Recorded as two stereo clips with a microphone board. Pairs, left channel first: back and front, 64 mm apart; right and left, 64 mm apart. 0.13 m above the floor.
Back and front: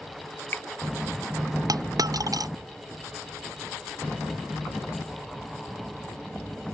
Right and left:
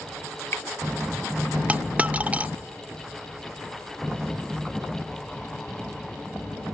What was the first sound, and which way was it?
Dripping, 130° right.